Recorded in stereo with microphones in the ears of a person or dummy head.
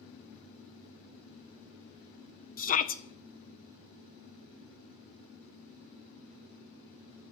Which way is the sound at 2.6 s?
35° left (ahead or behind).